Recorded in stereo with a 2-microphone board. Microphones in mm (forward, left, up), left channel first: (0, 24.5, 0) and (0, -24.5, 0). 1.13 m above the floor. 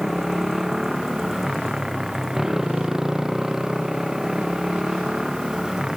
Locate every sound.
0.0 s a motorcycle: 10° right (ahead or behind); by 6.0 s 15° right (ahead or behind)